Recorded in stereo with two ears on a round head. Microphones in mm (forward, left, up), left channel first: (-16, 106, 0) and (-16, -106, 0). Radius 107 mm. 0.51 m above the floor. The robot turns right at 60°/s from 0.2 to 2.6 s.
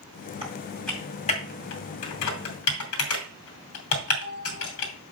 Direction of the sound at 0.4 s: 25° right (ahead or behind).